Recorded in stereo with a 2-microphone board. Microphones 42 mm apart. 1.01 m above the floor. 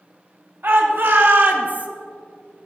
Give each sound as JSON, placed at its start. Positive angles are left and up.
{"t": 0.6, "sound": "a shout", "side_deg": -60, "distance_m": 2.5}